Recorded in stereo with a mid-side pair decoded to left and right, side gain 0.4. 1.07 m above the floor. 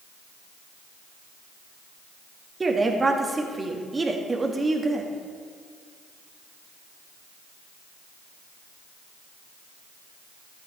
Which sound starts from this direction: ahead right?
A woman speaking, at 2.6 s.